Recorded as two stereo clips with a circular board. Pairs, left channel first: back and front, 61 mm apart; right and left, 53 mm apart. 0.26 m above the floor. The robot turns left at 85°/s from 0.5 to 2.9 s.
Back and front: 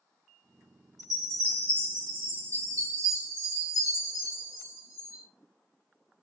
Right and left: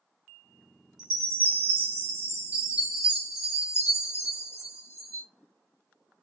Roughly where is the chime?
Behind.